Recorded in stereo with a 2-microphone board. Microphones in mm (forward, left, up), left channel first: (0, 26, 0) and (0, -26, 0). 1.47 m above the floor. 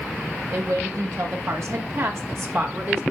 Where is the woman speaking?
80° right, 2 m; by 3.0 s 45° right (ahead or behind), 1.9 m.